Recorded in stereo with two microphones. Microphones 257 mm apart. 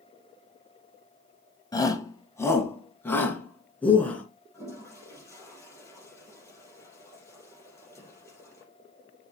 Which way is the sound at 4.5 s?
10° left (ahead or behind).